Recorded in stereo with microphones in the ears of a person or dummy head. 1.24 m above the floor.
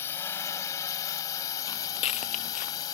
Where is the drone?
15° left (ahead or behind); by 3.0 s 20° left (ahead or behind).